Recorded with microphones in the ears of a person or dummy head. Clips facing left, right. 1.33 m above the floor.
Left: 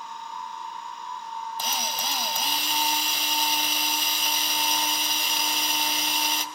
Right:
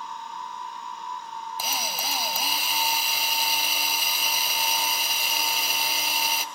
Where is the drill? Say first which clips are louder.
Even; centre (ahead or behind), 3.5 m.